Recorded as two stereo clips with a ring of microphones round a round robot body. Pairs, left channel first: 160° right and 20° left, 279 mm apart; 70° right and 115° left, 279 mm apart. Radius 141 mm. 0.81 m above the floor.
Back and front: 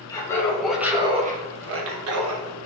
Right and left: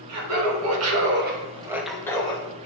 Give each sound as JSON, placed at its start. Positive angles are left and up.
{"t": 0.1, "sound": "laughter", "azimuth_deg": 125, "distance_m": 2.0}